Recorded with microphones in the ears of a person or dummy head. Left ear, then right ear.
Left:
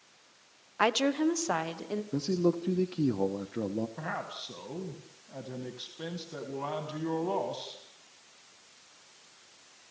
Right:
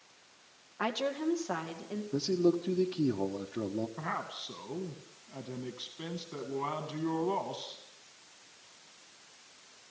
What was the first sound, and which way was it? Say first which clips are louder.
A woman speaking: left 6 dB; 75° left (ahead or behind).